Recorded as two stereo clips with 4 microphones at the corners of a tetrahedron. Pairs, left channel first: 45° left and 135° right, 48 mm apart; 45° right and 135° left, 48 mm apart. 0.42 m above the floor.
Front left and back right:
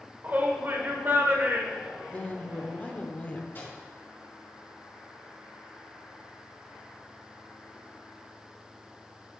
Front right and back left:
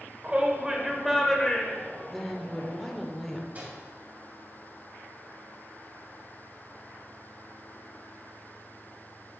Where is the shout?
170° right, 1.2 m; by 2.9 s 85° right, 1.5 m.